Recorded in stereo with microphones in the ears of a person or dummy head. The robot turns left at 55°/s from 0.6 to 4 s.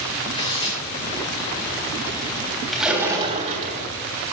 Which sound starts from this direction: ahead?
A splash, at 2.7 s.